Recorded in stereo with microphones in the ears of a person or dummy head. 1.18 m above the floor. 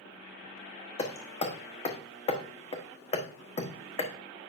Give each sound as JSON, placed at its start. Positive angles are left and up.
{"t": 1.0, "sound": "hammering", "side_deg": 25, "distance_m": 1.1}